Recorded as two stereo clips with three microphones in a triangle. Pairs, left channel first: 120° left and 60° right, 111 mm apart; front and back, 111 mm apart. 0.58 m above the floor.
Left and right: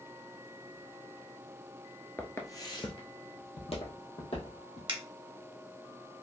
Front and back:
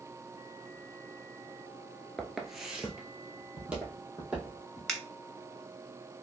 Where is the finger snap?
85° right, 0.7 m.